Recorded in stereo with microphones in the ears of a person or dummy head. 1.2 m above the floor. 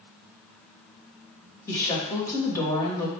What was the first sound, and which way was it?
A woman speaking, 20° left (ahead or behind).